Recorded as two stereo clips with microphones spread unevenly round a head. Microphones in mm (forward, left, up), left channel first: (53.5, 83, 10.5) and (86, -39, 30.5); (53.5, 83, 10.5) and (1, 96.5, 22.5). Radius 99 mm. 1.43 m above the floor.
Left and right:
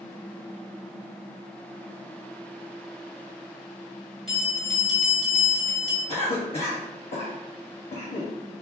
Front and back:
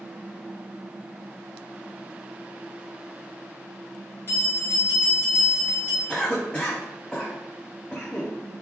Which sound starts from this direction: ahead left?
A cough, at 6.1 s.